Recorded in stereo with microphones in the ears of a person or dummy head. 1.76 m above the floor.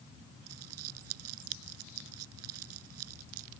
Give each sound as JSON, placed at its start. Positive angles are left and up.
{"t": 0.5, "sound": "crumpling", "side_deg": -80}